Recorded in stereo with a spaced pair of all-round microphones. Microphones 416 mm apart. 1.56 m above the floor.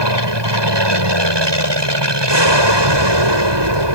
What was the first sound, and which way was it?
An aircraft, 80° right.